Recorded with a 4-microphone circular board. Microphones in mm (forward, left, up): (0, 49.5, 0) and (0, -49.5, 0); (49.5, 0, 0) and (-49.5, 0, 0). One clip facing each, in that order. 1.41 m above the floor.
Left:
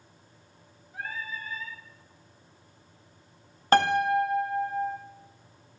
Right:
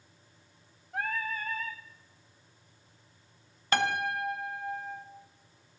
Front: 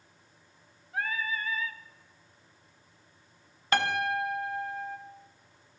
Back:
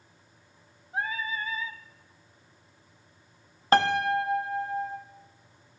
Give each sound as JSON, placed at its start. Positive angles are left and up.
{"t": 0.9, "sound": "singing", "azimuth_deg": -115, "distance_m": 0.5}
{"t": 3.7, "sound": "a piano", "azimuth_deg": 130, "distance_m": 0.7}